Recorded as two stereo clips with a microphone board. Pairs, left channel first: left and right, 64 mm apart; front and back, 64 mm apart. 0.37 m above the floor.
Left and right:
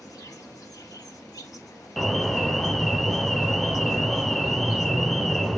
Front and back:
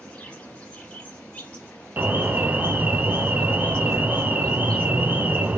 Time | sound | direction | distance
0.0 | an insect | 70° left | 1.5 m
2.0 | an alarm | 175° left | 0.5 m